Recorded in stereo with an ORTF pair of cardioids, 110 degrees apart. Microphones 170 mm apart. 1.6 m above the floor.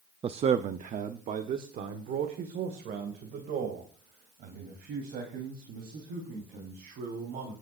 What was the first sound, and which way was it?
A man speaking, 35° right.